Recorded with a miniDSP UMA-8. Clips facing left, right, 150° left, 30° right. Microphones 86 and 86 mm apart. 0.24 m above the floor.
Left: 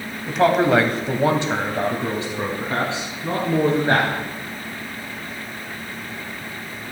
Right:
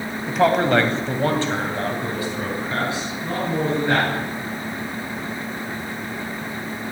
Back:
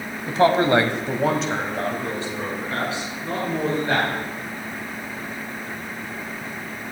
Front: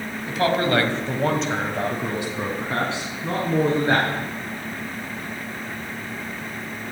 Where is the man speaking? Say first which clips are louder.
Left 1 dB, back 4 dB; 175° right, 1.1 m; by 4.1 s 25° left, 2.5 m.